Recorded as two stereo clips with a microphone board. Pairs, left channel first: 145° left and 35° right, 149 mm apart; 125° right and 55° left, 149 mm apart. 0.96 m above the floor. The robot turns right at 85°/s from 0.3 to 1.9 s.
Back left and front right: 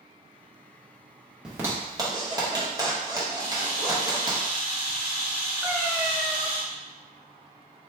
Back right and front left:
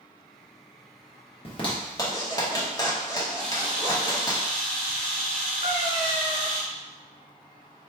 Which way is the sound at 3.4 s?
40° right.